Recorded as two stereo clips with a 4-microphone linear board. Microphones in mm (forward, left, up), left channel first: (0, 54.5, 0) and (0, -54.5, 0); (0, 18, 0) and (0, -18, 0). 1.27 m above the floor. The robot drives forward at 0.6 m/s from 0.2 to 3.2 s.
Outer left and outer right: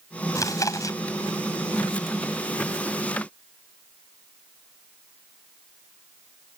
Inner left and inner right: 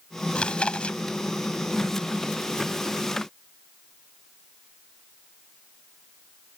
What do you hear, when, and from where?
0.3 s chewing: 30° left (ahead or behind)